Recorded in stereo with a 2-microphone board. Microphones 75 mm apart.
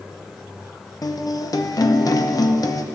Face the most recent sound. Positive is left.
turn(degrees=55)  # may be behind; listen again after turning